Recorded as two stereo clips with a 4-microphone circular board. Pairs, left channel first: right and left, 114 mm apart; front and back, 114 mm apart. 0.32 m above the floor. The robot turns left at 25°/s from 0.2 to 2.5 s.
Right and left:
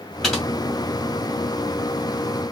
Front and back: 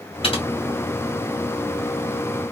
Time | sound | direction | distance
0.2 | typing on a keyboard | straight ahead | 2.5 m